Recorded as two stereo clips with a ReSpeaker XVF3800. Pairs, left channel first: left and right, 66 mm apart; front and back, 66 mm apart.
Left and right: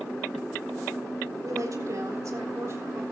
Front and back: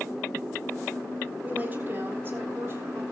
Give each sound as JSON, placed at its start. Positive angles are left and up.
{"t": 1.4, "sound": "a woman speaking", "azimuth_deg": -115, "distance_m": 3.5}